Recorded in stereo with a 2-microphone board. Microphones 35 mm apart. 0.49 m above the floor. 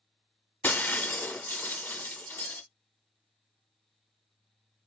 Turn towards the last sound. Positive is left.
turn(degrees=80)